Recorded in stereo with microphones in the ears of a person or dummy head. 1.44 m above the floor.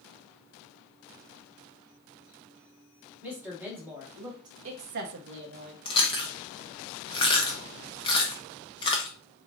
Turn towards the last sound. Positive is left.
turn(degrees=20)  # may be behind; listen again after turning